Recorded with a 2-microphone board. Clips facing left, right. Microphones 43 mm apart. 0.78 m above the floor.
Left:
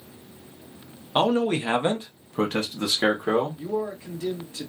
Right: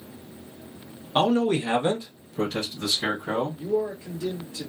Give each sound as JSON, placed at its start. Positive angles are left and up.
{"t": 1.1, "sound": "a man speaking", "side_deg": 10, "distance_m": 0.8}
{"t": 3.6, "sound": "a man speaking", "side_deg": 45, "distance_m": 1.7}